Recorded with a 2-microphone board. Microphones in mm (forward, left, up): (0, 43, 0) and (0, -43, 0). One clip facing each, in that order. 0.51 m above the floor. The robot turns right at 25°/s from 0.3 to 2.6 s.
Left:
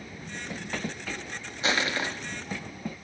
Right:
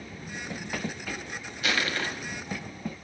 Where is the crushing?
30° left (ahead or behind), 1.0 m; by 2.1 s 20° left (ahead or behind), 1.0 m.